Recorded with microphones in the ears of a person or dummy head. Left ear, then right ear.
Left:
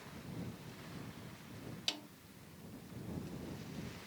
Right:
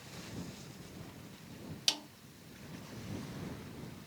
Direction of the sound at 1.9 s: 20° right (ahead or behind).